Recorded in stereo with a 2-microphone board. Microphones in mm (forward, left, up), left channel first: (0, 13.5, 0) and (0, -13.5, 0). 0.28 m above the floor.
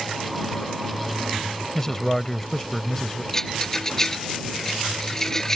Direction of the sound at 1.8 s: 15° left (ahead or behind).